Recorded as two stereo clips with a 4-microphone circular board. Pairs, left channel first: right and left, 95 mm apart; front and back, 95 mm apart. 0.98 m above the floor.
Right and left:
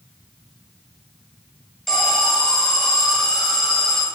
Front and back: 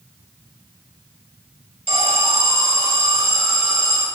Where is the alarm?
Straight behind, 8.5 m.